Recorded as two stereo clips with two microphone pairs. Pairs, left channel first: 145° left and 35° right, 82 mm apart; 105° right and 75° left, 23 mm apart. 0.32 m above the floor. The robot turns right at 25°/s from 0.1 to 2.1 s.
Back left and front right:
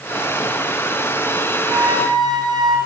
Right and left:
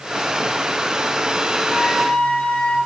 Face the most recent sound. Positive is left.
turn(degrees=-70)